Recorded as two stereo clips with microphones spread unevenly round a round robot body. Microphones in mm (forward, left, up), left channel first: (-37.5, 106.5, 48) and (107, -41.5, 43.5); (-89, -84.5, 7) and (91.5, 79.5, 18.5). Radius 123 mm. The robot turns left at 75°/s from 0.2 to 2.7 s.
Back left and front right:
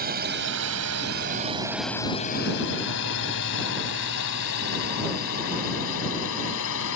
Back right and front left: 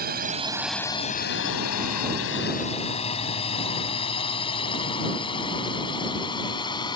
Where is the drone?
10° right; by 7.0 s 150° left.